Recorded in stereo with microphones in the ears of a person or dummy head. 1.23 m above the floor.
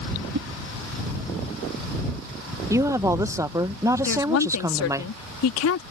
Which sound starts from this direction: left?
A woman speaking, at 4.0 s.